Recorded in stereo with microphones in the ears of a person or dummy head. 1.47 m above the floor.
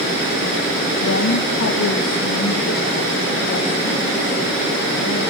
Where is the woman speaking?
70° left (ahead or behind), 1.1 m; by 5.2 s 45° left (ahead or behind), 4 m.